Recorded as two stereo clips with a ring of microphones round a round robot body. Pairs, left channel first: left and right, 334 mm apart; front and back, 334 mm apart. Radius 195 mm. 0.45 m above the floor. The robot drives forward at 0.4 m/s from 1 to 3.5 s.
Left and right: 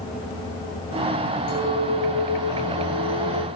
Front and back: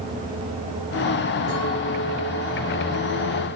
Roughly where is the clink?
Left.